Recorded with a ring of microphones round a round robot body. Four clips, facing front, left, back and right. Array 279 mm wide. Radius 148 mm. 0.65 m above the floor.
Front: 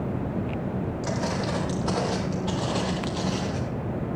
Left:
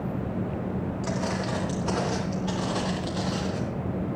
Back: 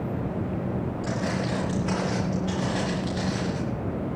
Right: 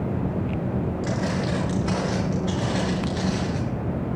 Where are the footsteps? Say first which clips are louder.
Right 3 dB, front 1 dB; 15° right, 8.5 m; by 3.6 s 35° right, 7 m.